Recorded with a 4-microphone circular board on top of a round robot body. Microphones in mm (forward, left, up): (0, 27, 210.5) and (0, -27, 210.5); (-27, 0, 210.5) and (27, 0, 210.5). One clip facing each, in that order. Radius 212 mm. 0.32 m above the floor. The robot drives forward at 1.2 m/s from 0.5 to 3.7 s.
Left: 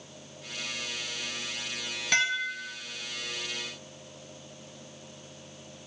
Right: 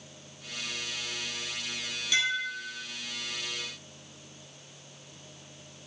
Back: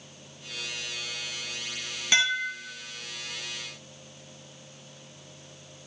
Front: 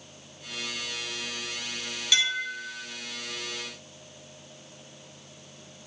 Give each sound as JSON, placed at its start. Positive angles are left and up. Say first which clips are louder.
{"t": 2.1, "sound": "dishes clattering", "louder": "left 2 dB, back 2 dB", "azimuth_deg": 125, "distance_m": 2.5}